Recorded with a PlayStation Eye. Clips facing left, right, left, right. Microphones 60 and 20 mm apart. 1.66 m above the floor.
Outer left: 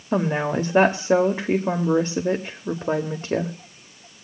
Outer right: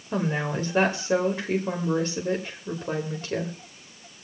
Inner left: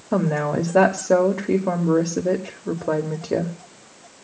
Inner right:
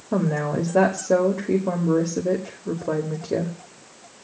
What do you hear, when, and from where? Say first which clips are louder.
0.1 s a woman speaking: outer left 5 dB, inner left 2 dB; 30° left (ahead or behind), 1.0 m